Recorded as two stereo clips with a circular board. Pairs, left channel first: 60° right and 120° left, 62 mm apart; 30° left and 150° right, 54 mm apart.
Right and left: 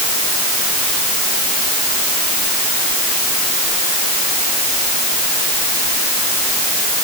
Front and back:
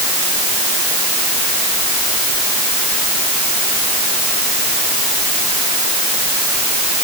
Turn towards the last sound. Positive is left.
No sound to turn to.